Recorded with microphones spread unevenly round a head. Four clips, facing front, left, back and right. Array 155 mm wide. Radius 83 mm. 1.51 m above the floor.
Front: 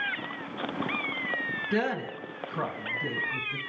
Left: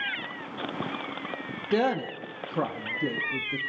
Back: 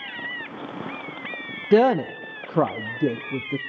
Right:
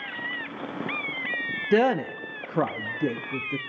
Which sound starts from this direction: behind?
A woman speaking, at 1.7 s.